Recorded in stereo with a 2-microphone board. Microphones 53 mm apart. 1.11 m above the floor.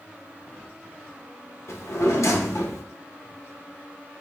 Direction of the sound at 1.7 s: 75° left (ahead or behind).